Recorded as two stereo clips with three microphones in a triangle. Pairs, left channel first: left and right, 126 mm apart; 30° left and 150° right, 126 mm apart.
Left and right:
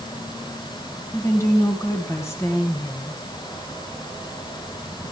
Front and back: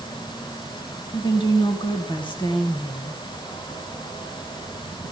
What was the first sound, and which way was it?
A woman speaking, 35° left.